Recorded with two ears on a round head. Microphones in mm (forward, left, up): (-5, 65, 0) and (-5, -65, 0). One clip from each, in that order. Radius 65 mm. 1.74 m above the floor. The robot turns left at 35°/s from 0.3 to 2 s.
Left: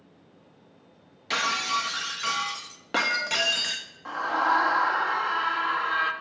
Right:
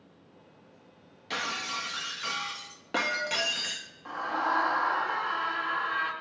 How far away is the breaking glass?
About 1.3 m.